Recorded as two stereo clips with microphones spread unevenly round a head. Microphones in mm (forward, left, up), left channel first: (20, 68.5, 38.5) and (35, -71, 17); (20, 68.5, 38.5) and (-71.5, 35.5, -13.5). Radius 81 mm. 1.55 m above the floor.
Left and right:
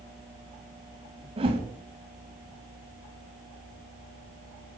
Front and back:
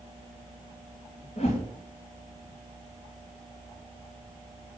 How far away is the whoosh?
About 3 m.